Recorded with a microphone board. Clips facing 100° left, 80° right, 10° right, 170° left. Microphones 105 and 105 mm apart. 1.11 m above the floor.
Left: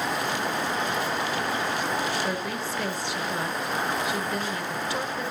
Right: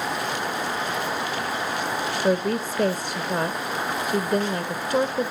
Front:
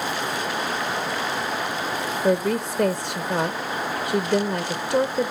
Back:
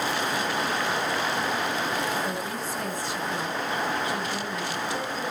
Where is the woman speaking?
45° right, 0.9 m.